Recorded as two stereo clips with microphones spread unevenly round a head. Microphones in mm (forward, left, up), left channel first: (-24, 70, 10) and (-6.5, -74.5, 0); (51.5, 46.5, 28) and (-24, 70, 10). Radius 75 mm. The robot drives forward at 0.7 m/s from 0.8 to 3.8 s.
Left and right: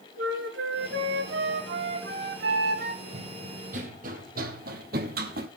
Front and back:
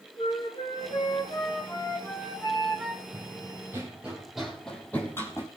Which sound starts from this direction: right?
A flute, at 0.2 s.